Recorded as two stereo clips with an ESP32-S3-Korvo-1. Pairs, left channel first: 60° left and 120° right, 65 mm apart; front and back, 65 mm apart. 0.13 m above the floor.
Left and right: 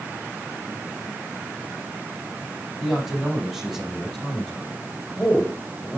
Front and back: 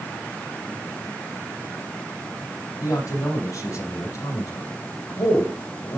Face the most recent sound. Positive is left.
turn(degrees=-5)